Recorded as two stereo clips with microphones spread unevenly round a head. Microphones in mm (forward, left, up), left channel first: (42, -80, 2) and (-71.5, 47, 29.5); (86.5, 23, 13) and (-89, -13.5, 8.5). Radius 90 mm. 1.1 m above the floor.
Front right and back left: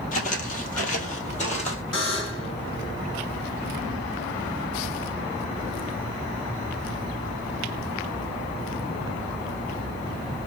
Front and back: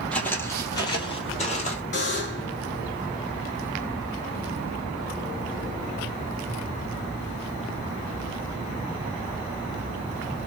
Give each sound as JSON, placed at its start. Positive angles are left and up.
{"t": 0.1, "sound": "footsteps", "azimuth_deg": -65, "distance_m": 1.2}
{"t": 1.9, "sound": "a buzzer", "azimuth_deg": -30, "distance_m": 1.6}